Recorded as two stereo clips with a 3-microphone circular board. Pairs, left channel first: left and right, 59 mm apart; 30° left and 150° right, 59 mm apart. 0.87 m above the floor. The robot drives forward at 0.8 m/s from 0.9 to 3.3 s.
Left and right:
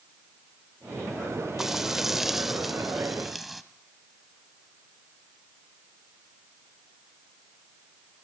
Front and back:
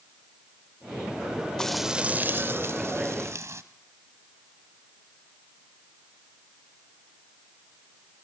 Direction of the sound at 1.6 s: 15° right.